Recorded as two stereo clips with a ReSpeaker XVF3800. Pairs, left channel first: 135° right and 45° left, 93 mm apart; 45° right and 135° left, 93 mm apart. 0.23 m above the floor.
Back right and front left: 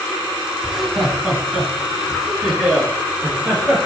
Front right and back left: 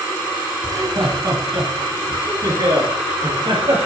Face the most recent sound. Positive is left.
turn(degrees=130)